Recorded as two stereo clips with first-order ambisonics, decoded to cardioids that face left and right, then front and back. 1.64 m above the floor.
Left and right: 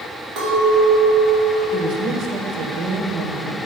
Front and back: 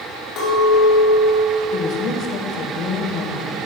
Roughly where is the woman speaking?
Ahead right.